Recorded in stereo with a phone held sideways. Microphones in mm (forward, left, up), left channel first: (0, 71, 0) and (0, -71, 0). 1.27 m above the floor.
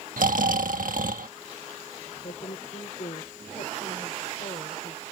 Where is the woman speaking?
55° left (ahead or behind).